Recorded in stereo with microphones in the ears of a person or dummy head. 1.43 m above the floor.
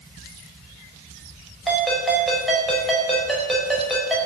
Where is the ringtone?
5° right (ahead or behind), 5 m.